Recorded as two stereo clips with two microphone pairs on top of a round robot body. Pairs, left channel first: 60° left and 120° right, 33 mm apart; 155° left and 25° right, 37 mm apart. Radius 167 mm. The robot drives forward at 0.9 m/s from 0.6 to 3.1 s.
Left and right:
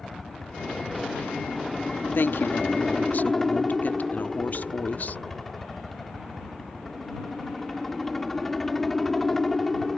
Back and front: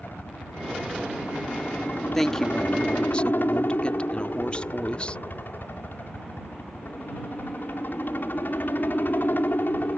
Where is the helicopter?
135° left; by 10.0 s 140° left.